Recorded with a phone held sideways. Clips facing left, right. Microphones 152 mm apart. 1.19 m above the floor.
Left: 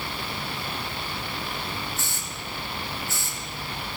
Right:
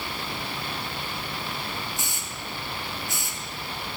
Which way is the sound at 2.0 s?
15° right (ahead or behind).